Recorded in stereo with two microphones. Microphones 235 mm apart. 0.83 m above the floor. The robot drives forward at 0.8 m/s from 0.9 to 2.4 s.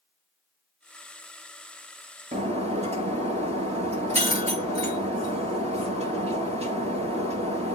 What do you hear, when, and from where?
2.3 s breaking glass: 30° right (ahead or behind), 4 m